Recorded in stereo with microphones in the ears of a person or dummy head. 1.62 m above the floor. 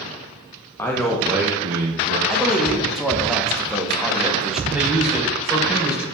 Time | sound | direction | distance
0.8 | a man speaking | 15° left (ahead or behind) | 1.2 m
2.3 | a man speaking | centre (ahead or behind) | 1.3 m
4.7 | a man speaking | 5° right (ahead or behind) | 3.5 m